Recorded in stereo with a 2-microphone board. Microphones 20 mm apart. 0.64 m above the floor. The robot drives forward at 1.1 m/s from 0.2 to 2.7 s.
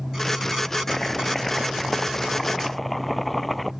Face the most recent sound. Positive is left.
turn(degrees=5)  # may be behind; listen again after turning